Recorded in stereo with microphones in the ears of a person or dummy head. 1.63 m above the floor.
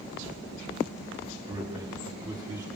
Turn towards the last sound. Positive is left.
turn(degrees=-15)  # may be behind; listen again after turning